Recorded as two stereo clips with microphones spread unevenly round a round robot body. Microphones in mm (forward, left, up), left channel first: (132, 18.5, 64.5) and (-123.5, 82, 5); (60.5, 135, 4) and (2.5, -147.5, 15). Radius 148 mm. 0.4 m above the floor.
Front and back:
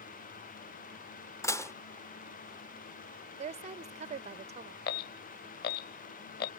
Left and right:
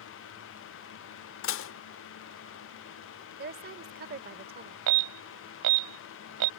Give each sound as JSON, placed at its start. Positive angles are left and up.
{"t": 1.4, "sound": "dishes clattering", "azimuth_deg": 75}
{"t": 3.4, "sound": "a woman speaking", "azimuth_deg": -150}
{"t": 4.9, "sound": "an alarm", "azimuth_deg": -75}